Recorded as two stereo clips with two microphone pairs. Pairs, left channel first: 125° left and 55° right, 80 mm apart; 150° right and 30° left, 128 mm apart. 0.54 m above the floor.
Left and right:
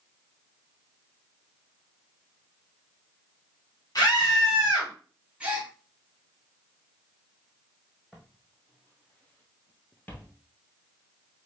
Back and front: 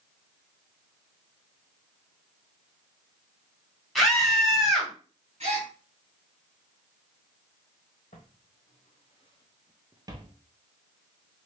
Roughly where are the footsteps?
Behind right.